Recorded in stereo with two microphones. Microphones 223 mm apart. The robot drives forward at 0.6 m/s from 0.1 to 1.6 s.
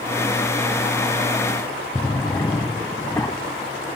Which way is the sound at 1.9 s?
15° left (ahead or behind).